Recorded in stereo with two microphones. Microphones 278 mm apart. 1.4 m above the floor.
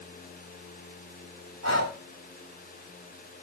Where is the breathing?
70° right (ahead or behind), 4.5 m.